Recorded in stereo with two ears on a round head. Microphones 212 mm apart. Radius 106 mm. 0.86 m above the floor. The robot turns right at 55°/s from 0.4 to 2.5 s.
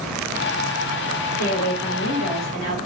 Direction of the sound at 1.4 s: 60° left.